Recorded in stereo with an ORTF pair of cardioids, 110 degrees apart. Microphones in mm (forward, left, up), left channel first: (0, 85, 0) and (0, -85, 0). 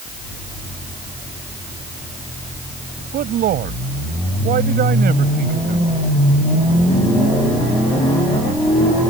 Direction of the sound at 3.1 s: 60° right.